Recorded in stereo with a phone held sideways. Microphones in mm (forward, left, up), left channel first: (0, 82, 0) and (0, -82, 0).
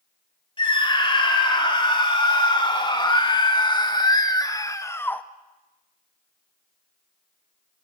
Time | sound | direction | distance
0.6 | a scream | 30° left (ahead or behind) | 4 m